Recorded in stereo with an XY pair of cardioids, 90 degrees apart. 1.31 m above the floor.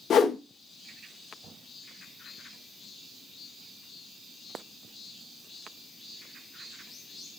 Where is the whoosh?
60° left, 0.6 m.